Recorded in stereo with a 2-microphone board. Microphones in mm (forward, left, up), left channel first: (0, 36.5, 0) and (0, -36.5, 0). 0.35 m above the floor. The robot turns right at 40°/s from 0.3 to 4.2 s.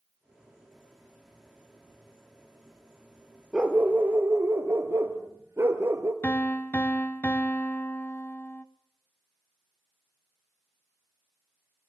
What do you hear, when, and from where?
3.5 s a dog barking: 10° right (ahead or behind), 1.8 m; by 6.1 s 35° right (ahead or behind), 1.8 m
6.2 s a piano: 25° left (ahead or behind), 0.8 m